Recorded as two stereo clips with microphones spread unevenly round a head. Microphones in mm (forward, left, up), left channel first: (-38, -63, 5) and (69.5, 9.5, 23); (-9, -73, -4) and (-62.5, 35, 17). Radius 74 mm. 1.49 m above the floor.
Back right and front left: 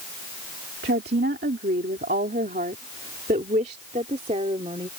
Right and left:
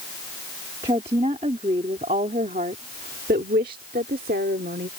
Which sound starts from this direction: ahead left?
A woman speaking, at 0.8 s.